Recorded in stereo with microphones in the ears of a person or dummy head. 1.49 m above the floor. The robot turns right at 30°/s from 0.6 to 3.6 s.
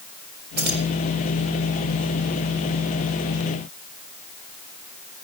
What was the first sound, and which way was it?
Keys jangling, 50° right (ahead or behind).